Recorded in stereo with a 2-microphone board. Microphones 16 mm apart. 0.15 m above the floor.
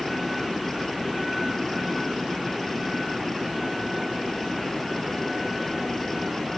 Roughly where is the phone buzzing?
I don't hear a phone buzzing.